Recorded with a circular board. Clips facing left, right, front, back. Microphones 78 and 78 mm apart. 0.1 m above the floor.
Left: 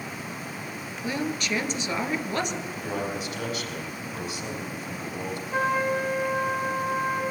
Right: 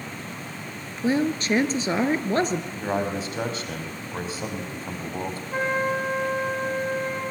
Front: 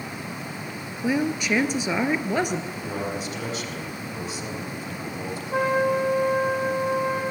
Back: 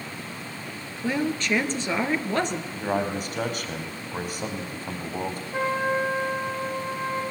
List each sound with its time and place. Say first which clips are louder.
1.0 s a woman speaking: right 7 dB, front 2 dB; 70° right, 1.6 m
2.7 s a man speaking: right 4 dB, back 3 dB; 140° right, 4.5 m
5.5 s a trumpet: even, front 4 dB; 5° right, 5.5 m